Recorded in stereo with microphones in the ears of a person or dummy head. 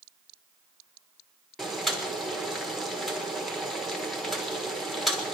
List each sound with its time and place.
1.6 s boiling: centre (ahead or behind), 1.2 m